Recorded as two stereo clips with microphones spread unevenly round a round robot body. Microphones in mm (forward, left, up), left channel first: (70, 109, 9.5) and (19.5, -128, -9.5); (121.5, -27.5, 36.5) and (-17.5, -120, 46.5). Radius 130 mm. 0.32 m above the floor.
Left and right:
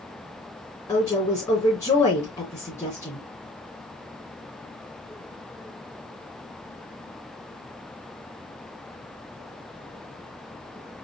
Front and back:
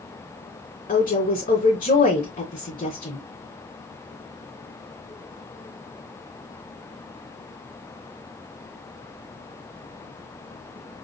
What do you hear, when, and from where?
0.9 s a woman speaking: straight ahead, 3 m